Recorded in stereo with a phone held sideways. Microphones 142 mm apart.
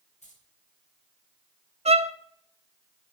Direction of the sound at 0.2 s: 60° left (ahead or behind).